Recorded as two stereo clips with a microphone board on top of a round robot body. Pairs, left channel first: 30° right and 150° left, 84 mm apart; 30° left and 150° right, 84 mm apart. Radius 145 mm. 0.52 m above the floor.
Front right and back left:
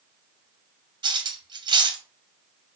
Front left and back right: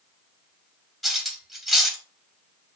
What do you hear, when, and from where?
1.0 s cutlery clinking: 120° left, 0.9 m